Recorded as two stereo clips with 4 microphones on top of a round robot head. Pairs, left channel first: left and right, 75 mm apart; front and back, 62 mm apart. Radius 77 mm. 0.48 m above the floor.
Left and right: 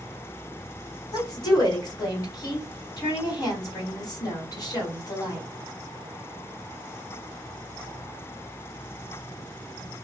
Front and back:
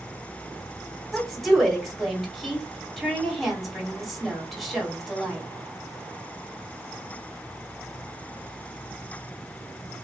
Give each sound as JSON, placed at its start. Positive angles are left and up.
{"t": 1.1, "sound": "a woman speaking", "azimuth_deg": 90, "distance_m": 2.0}